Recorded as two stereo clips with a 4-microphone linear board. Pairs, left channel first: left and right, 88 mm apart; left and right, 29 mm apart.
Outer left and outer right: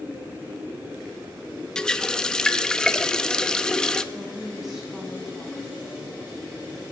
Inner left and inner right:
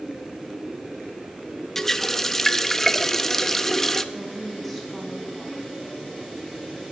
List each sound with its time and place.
1.8 s a running tap: 10° left (ahead or behind), 0.6 m
4.1 s a woman speaking: 5° right (ahead or behind), 7.5 m